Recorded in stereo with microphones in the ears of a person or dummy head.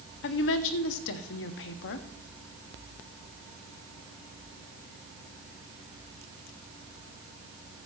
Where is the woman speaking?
65° left (ahead or behind), 1.0 m.